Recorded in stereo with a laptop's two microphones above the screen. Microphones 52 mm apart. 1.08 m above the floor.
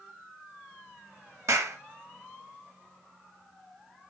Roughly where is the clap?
Right.